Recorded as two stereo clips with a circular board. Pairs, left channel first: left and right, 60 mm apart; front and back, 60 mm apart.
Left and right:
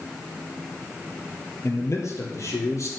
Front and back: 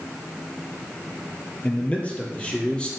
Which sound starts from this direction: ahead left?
A man speaking, at 1.6 s.